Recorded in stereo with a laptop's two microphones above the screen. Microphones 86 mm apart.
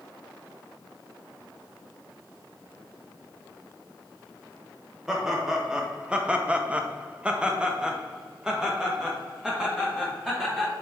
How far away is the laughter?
About 1.1 m.